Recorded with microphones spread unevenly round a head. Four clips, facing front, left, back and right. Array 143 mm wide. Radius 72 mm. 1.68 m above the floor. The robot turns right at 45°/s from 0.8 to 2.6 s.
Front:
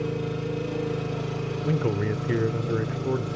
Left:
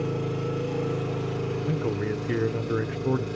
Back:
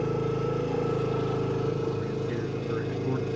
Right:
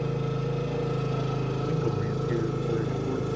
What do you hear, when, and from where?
0.0 s an engine running: 170° left, 1.8 m; by 3.4 s 110° right, 1.8 m
1.6 s a man speaking: 15° left, 0.6 m; by 3.3 s 55° left, 0.6 m